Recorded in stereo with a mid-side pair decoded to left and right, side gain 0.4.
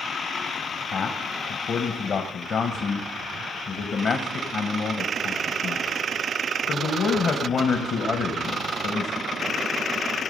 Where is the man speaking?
60° left, 1.3 m.